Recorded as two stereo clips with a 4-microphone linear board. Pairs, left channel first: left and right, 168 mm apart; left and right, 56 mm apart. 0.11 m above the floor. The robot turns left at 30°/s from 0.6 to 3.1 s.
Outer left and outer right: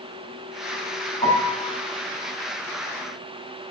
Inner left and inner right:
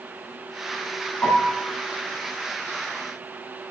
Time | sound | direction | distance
1.2 | a piano | 45° left (ahead or behind) | 3.5 m